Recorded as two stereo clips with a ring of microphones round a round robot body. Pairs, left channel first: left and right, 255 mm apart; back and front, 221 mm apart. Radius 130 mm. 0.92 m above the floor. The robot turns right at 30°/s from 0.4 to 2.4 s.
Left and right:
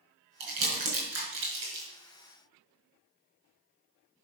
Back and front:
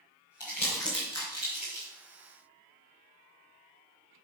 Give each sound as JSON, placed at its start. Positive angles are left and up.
{"t": 0.4, "sound": "crumpling", "azimuth_deg": -100, "distance_m": 4.5}